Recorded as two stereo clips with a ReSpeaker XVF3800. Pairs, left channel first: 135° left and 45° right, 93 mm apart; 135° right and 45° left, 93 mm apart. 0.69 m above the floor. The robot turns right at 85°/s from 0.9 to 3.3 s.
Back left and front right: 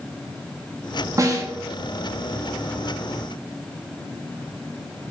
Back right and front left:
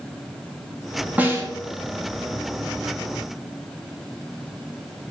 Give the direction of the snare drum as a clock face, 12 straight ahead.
1 o'clock.